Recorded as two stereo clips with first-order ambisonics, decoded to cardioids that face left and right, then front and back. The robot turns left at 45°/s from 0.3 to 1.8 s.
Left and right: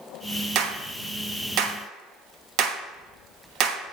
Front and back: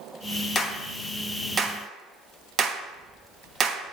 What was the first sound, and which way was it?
A clap, 65° right.